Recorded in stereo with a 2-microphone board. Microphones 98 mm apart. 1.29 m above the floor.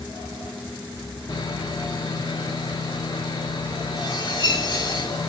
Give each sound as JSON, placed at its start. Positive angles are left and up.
{"t": 1.3, "sound": "sawing", "side_deg": 55, "distance_m": 3.0}